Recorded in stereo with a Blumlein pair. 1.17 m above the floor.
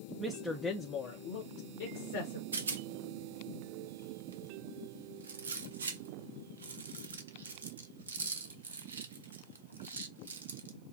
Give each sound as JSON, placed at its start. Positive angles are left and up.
{"t": 0.2, "sound": "a woman speaking", "azimuth_deg": -10, "distance_m": 0.7}
{"t": 2.5, "sound": "a rattle", "azimuth_deg": -70, "distance_m": 0.5}